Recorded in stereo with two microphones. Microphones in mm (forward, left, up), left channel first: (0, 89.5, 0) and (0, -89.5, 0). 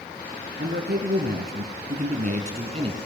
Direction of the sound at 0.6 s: 65° right (ahead or behind).